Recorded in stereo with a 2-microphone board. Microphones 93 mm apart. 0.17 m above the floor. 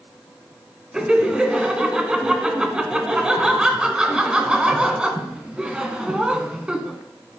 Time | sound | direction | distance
0.9 | laughter | 10° right (ahead or behind) | 1.5 m